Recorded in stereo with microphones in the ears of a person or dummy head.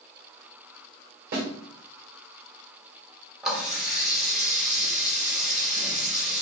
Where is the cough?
No cough in this recording.